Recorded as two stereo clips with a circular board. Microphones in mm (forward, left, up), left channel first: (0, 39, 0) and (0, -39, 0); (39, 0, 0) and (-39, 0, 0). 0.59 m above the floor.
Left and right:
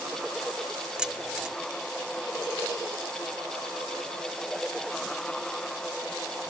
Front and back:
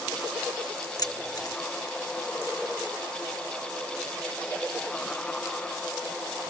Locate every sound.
1.0 s keys jangling: 10° right